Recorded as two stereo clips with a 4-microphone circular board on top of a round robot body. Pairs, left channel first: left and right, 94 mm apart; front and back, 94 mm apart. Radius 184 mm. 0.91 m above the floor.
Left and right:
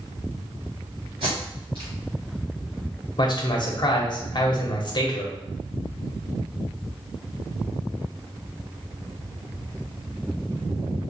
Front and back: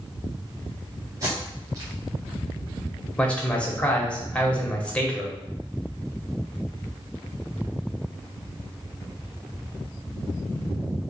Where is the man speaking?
75° left, 1.2 m.